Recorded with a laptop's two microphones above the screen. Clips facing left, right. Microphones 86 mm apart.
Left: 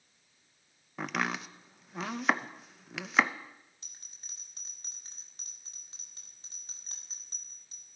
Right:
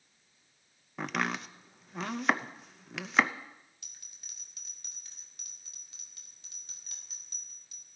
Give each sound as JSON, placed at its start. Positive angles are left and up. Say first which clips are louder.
{"t": 1.0, "sound": "chopping", "louder": "even", "side_deg": 0, "distance_m": 0.7}
{"t": 3.8, "sound": "a bell", "louder": "left 1 dB", "side_deg": 35, "distance_m": 2.0}